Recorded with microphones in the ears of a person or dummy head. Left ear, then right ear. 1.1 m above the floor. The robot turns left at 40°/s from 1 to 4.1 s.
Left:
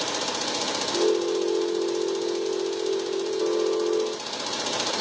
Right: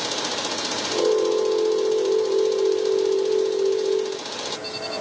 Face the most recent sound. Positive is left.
No sound to turn to.